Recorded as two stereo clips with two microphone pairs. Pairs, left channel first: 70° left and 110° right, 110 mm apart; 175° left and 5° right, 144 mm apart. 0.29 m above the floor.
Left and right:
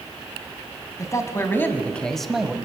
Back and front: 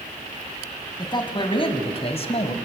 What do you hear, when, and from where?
1.0 s a man speaking: 125° left, 3 m; by 2.5 s 170° left, 2 m